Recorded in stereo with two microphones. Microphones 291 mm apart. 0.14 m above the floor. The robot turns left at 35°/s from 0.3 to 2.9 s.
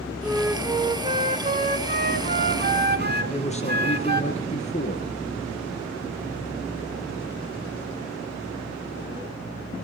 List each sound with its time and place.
0.2 s a flute: 10° right, 0.8 m; by 4.2 s 100° right, 0.8 m
3.2 s a man speaking: 25° left (ahead or behind), 3 m